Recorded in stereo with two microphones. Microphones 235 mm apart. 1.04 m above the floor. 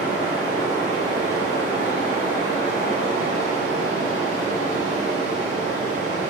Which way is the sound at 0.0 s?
30° right (ahead or behind).